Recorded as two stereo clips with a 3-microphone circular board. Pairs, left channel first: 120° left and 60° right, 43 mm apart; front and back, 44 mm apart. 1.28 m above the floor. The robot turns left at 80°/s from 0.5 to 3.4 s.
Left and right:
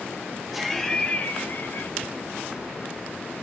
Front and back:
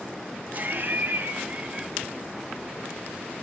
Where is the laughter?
145° right, 0.8 m; by 1.9 s 105° left, 0.8 m.